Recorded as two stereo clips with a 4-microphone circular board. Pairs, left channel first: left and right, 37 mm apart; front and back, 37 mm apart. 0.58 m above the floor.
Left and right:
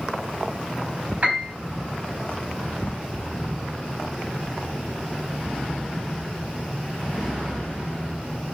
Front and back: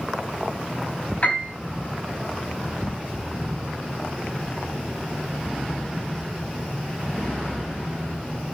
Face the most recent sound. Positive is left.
turn(degrees=-40)